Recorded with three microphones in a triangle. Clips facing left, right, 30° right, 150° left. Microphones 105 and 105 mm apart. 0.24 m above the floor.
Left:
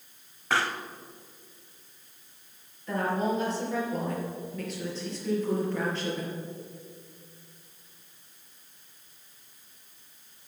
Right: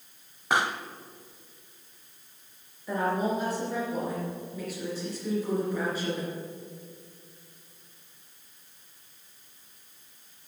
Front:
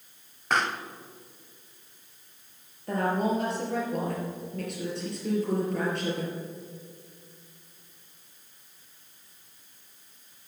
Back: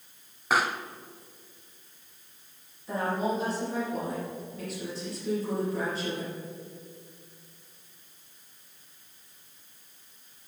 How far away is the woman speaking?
About 4.5 m.